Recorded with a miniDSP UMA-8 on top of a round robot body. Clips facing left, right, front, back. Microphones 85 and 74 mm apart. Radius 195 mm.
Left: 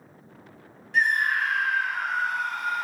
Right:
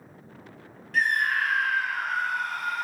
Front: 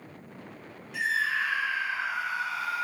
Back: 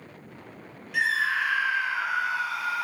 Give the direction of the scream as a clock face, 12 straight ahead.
7 o'clock.